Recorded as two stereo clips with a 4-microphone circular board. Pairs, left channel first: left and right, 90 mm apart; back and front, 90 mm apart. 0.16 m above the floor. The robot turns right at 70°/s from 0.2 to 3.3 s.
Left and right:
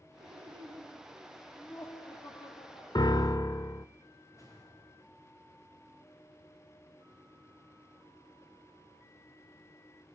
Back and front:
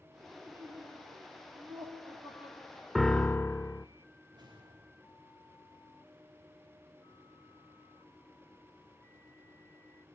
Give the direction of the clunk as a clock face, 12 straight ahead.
No clunk in this recording.